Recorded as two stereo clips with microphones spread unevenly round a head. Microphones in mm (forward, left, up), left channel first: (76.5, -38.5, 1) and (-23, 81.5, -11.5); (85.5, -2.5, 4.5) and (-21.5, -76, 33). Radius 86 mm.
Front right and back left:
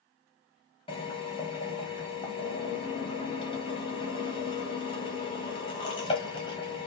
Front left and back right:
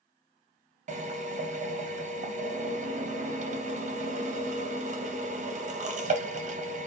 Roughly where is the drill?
Behind right.